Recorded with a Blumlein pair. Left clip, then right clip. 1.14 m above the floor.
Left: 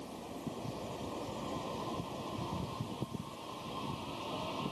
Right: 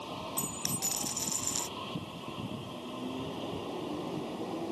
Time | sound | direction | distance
0.4 | a dropped coin | 45° right | ?